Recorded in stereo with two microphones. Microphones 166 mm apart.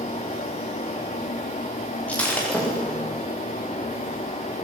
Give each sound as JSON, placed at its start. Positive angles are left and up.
{"t": 2.1, "sound": "breaking glass", "side_deg": 10, "distance_m": 10.0}